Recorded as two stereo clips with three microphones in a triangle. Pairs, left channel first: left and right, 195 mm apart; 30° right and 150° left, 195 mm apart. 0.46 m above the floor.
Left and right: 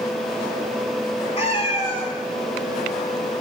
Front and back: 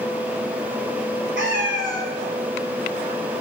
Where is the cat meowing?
145° left, 1.3 m.